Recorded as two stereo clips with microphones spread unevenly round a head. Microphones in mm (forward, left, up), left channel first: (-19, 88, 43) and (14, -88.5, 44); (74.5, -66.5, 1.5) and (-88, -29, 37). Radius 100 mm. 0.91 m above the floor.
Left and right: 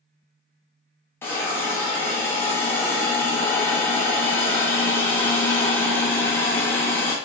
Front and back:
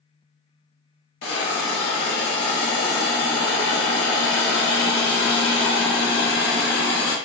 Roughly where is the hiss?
Ahead.